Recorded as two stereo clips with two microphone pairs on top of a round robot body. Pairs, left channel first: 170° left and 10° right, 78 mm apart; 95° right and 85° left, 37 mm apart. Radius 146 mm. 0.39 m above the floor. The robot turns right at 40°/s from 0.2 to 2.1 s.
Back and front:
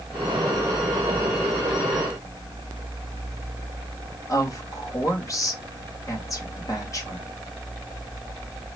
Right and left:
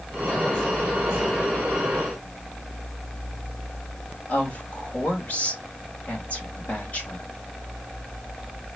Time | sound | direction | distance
4.3 | a woman speaking | 140° right | 3 m